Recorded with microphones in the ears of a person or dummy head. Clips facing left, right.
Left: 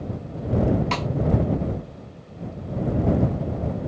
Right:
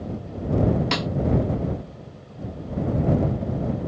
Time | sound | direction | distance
0.9 | a snare drum | 20° right (ahead or behind) | ?